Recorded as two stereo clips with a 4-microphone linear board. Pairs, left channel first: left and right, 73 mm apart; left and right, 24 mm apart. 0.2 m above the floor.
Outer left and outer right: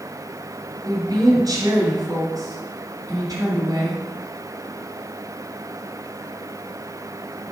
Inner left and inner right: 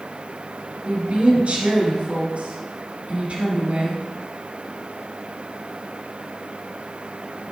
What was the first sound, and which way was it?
A woman speaking, 60° right (ahead or behind).